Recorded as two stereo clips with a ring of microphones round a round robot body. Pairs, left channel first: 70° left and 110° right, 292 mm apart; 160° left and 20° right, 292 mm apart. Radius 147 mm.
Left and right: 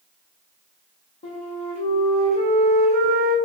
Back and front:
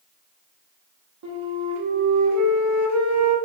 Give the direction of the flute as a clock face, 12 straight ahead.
12 o'clock.